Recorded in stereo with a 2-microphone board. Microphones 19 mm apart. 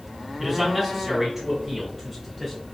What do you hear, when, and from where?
0.4 s a man speaking: 15° right (ahead or behind), 1.0 m; by 2.5 s 10° right (ahead or behind), 1.5 m